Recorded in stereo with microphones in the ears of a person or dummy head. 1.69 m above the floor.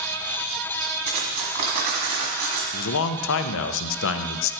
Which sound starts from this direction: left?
A man speaking, at 2.7 s.